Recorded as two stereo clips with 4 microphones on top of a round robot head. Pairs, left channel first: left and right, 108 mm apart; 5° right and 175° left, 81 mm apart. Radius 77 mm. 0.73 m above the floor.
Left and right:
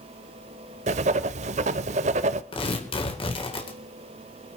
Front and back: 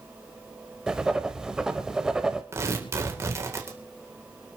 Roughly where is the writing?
Right.